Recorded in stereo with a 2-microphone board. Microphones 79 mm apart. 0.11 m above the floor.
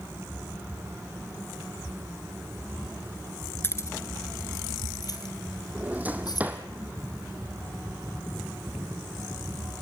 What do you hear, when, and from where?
3.6 s keys jangling: 30° left (ahead or behind), 1.1 m; by 6.5 s 55° left (ahead or behind), 3.5 m
5.8 s a drawer: 20° right (ahead or behind), 1.9 m